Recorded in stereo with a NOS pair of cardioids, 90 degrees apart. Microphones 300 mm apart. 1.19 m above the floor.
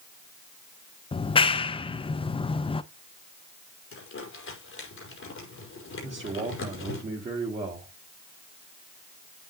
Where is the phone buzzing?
No phone buzzing in this recording.